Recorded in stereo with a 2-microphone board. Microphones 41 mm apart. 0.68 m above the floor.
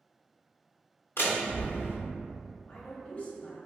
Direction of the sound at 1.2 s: 70° left (ahead or behind).